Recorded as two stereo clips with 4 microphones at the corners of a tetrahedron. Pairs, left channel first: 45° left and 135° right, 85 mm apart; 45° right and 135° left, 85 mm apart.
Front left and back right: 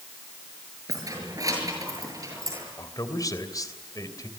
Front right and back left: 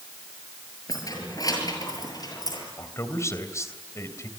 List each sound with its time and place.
0.9 s keys jangling: 90° right, 7.5 m; by 2.7 s 85° right, 8.5 m
2.8 s a man speaking: 5° left, 3 m